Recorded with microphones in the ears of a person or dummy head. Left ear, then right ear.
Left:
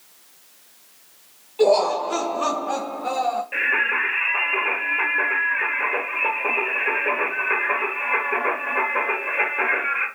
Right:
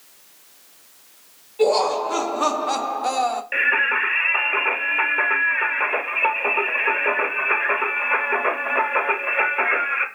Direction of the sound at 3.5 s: 40° right (ahead or behind).